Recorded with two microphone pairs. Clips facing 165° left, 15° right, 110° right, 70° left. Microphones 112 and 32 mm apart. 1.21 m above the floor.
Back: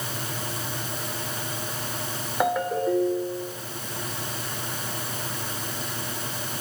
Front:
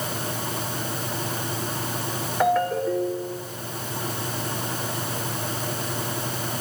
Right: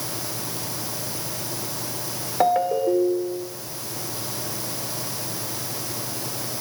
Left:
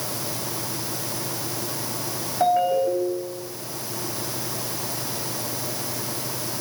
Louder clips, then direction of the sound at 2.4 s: Front 2 dB, even; 115° right.